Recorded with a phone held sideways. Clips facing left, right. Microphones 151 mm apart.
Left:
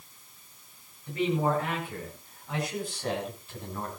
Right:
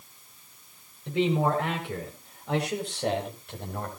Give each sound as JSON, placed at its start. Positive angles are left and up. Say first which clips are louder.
{"t": 1.1, "sound": "a man speaking", "louder": "right 2 dB", "side_deg": -80, "distance_m": 7.5}